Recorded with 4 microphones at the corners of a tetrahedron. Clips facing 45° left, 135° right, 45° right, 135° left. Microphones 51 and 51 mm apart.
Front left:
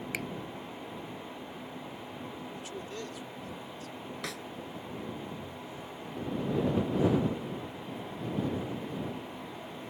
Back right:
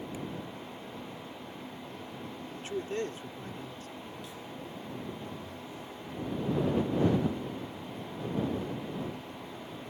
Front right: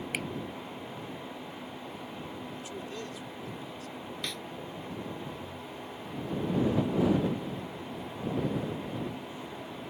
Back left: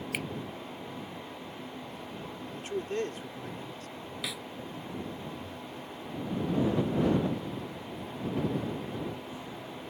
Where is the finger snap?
40° left.